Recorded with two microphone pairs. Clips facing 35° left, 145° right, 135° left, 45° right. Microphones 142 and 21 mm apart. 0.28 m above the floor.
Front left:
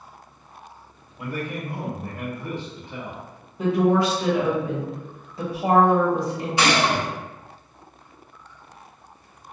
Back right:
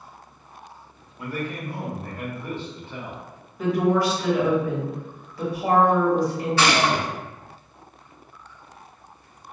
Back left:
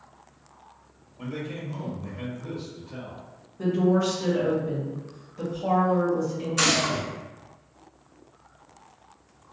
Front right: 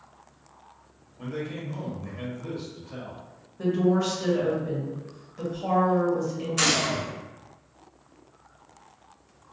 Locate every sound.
1.2 s a man speaking: 90° left, 0.9 m; by 3.2 s 35° right, 1.1 m
3.6 s a woman speaking: 20° left, 0.9 m
6.6 s a gunshot: 35° left, 0.9 m